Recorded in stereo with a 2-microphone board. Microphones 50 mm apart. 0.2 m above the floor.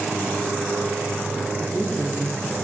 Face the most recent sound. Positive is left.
turn(degrees=20)  # may be behind; listen again after turning